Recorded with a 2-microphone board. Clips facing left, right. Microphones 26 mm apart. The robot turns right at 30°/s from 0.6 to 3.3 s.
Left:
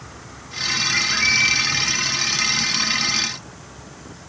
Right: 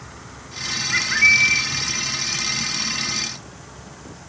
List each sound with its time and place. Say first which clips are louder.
0.9 s a bird: right 5 dB; 10° right (ahead or behind), 2.5 m; by 1.7 s 5° left (ahead or behind), 2.5 m